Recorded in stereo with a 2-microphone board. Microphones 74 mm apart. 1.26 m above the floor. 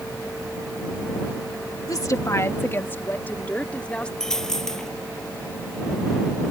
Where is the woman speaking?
55° left (ahead or behind); by 4.1 s 15° left (ahead or behind).